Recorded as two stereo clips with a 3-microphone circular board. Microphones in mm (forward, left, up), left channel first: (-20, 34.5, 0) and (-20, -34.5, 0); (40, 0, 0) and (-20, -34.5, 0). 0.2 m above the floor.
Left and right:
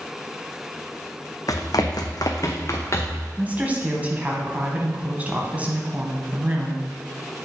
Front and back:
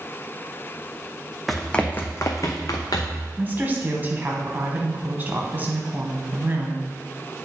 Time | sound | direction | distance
1.5 | running footsteps | 120° left | 0.8 m
3.4 | a woman speaking | 130° right | 1.2 m